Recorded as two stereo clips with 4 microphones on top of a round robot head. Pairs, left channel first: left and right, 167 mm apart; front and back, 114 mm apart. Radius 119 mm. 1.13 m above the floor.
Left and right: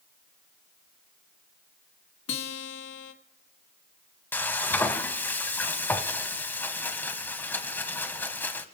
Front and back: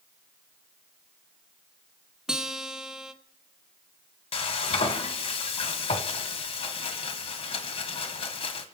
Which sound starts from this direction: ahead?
Frying, at 4.3 s.